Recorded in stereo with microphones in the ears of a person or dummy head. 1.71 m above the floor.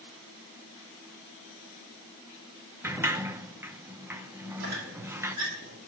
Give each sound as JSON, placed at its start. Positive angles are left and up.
{"t": 2.8, "sound": "a sliding door", "side_deg": -5, "distance_m": 0.8}
{"t": 4.6, "sound": "a squeak", "side_deg": -55, "distance_m": 5.0}